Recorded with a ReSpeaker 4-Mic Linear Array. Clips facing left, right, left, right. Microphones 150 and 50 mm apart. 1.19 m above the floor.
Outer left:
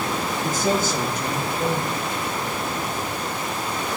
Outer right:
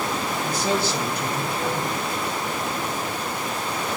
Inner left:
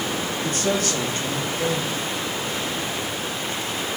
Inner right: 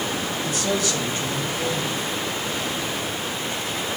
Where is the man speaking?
50° left (ahead or behind), 2.5 m.